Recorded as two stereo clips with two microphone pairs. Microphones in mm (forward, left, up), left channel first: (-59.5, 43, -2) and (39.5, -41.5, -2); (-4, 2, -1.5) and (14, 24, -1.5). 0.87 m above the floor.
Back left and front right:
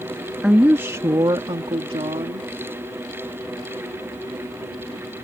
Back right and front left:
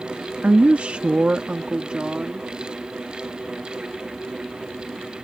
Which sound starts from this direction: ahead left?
A woman speaking, at 0.4 s.